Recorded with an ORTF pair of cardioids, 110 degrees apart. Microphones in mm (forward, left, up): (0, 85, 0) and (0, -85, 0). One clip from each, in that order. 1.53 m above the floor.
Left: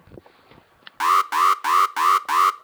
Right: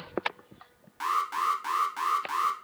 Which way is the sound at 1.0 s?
55° left.